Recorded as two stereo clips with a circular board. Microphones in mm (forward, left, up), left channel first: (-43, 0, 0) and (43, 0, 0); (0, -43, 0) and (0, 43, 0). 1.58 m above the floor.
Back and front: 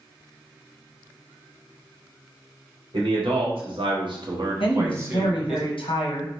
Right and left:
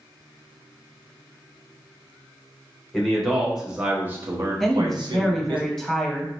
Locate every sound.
2.9 s a man speaking: 5° right, 1.4 m; by 5.6 s 85° left, 0.9 m
4.6 s a woman speaking: 175° right, 1.0 m